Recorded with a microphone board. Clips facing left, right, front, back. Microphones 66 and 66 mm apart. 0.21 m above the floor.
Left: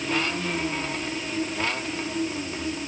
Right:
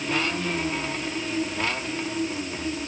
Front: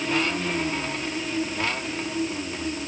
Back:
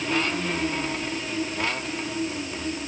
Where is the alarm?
I don't hear an alarm.